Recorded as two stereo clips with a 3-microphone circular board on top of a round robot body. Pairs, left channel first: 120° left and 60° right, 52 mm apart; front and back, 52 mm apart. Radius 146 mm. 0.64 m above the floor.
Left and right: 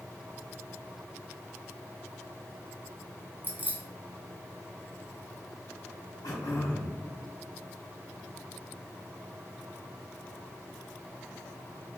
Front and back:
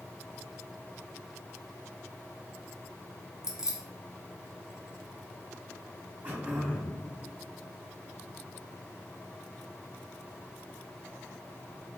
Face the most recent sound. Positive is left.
turn(degrees=120)